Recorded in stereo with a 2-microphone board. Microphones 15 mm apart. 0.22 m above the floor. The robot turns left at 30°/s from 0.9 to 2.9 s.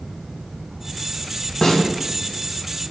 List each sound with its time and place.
1.6 s a snare drum: 35° left (ahead or behind), 0.7 m; by 1.8 s 30° left (ahead or behind), 0.7 m